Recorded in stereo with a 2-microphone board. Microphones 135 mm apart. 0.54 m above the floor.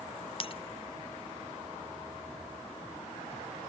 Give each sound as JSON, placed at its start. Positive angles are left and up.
{"t": 0.4, "sound": "breaking glass", "side_deg": 45}